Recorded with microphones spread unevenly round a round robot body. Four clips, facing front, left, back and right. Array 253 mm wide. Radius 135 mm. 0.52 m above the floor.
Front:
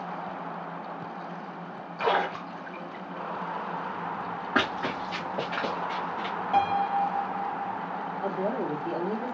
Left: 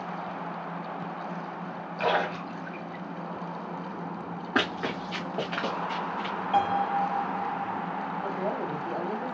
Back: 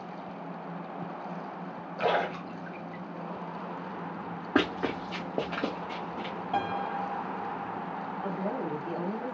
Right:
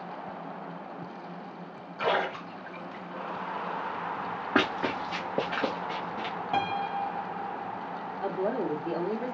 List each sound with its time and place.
2.0 s a splash: 165° left, 1.9 m
4.5 s running footsteps: 155° right, 1.7 m; by 6.3 s 130° right, 0.9 m
6.5 s a piano: 125° right, 0.9 m
8.2 s a woman speaking: 60° right, 1.6 m